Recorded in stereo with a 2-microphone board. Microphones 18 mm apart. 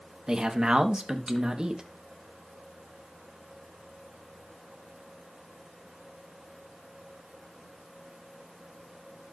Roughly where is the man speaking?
Right.